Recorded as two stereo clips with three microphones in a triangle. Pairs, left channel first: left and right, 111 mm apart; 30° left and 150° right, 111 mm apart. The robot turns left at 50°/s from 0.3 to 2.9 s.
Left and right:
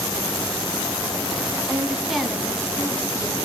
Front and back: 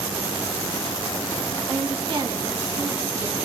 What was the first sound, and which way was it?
A woman speaking, 155° right.